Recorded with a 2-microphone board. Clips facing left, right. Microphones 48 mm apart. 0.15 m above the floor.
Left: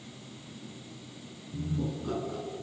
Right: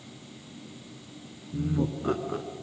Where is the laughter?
50° right (ahead or behind), 1.7 m.